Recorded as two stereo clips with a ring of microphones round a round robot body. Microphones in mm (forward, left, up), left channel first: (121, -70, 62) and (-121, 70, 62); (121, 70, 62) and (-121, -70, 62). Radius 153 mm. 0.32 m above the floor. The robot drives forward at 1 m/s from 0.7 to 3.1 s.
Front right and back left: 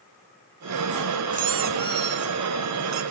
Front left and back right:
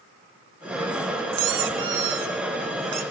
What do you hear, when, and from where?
1.3 s a squeak: 145° right, 1.8 m; by 3.0 s 165° right, 3.5 m